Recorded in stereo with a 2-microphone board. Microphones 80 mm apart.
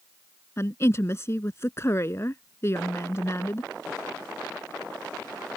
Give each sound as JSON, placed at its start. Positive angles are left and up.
{"t": 0.6, "sound": "a woman speaking", "side_deg": 35}